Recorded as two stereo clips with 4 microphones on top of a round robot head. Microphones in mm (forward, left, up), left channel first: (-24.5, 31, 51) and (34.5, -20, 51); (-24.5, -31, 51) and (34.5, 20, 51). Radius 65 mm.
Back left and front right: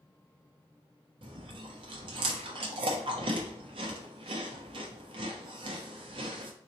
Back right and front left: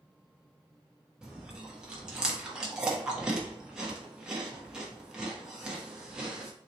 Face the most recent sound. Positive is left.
turn(degrees=-40)